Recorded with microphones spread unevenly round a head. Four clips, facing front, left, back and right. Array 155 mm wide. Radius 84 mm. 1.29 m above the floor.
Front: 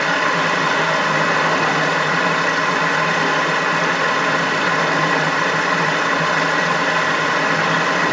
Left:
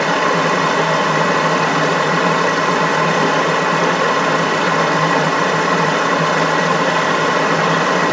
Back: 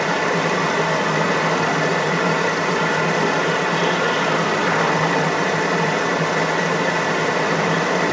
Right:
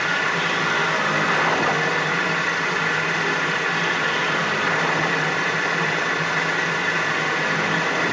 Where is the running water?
105° left, 1.1 m.